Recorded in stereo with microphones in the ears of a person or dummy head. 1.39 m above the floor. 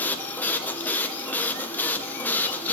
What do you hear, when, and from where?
0.0 s a machine running: 10° left (ahead or behind), 1.2 m